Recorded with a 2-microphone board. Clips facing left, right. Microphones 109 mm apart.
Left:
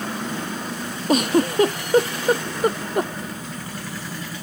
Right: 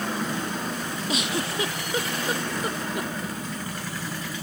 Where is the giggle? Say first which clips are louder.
Left 12 dB; 45° left (ahead or behind).